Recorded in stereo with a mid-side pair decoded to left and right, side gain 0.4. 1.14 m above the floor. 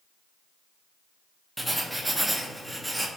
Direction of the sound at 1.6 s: 10° right.